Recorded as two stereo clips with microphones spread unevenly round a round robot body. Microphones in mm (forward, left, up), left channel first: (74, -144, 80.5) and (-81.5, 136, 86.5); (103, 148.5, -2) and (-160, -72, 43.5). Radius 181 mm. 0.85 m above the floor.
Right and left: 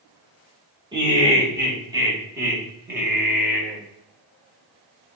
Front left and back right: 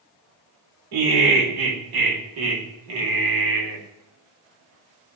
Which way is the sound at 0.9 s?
165° right.